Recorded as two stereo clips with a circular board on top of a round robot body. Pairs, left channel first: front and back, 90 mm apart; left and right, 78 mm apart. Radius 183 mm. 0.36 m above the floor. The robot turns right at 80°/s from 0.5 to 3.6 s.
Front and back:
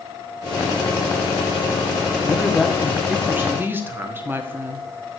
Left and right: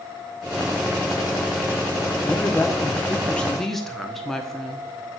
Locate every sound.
2.3 s a woman speaking: 60° left, 1.4 m; by 4.9 s 170° left, 1.4 m